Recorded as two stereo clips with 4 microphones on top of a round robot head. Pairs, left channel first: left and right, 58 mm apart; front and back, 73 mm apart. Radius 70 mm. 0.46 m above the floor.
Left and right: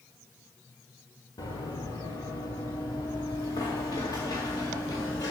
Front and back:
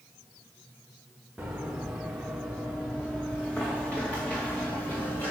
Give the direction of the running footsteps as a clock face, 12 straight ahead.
9 o'clock.